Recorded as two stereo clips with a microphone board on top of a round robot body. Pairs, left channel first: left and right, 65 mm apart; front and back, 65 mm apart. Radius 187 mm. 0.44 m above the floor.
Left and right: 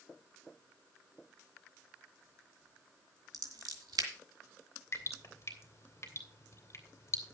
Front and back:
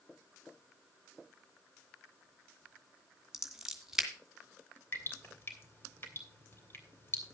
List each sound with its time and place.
3.3 s scissors: 100° right, 2.5 m
4.9 s dripping: 50° left, 2.5 m